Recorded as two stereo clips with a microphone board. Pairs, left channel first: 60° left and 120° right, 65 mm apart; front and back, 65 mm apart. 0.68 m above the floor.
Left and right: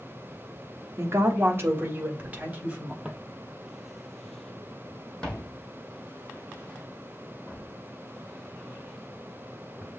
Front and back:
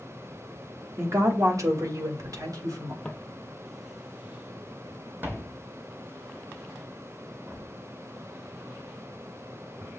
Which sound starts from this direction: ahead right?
Footsteps, at 3.0 s.